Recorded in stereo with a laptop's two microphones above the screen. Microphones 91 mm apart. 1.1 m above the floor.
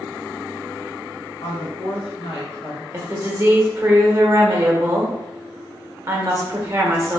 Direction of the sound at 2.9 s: 30° right (ahead or behind).